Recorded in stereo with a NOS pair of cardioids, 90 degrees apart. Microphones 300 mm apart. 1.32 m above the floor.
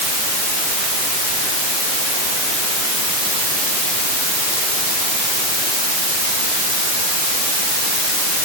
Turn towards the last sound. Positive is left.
No sound to turn to.